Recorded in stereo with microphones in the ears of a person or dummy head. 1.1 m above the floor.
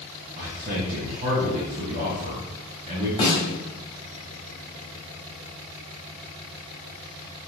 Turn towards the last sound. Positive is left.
turn(degrees=25)  # may be behind; listen again after turning